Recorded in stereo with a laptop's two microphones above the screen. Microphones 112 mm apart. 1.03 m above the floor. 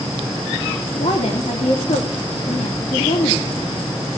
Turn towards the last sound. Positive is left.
turn(degrees=65)  # may be behind; listen again after turning